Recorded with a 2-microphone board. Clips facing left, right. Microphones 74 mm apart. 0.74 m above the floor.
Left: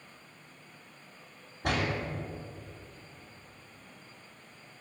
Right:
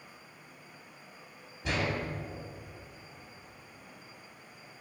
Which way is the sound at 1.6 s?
55° left (ahead or behind).